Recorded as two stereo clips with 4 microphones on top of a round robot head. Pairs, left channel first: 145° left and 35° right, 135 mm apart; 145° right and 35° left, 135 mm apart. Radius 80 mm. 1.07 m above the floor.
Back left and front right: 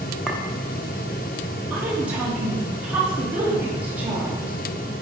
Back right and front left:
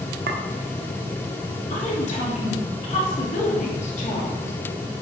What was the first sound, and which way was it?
A clink, 55° left.